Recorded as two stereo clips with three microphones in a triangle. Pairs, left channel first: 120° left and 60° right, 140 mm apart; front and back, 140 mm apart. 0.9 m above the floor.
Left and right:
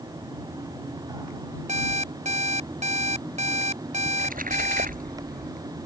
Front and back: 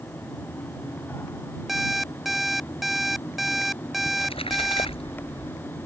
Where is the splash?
50° right.